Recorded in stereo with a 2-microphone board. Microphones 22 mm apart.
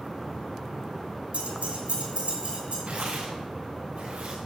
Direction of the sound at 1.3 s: 75° right (ahead or behind).